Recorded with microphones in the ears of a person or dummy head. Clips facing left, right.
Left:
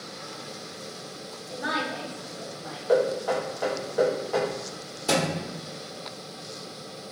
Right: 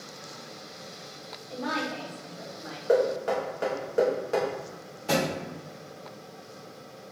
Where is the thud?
65° left (ahead or behind), 1.3 m.